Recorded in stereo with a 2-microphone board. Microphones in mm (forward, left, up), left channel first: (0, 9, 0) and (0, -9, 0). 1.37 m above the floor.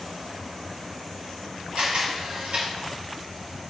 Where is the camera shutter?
75° right (ahead or behind), 4.5 m.